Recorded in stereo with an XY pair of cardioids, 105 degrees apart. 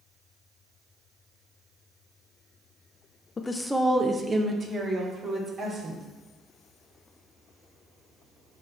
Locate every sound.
3.4 s a woman speaking: 35° left, 0.6 m; by 6.0 s 45° right, 4 m